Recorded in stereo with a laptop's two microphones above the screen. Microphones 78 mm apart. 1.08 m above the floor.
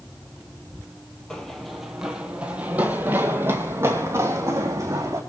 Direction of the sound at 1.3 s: 10° left (ahead or behind).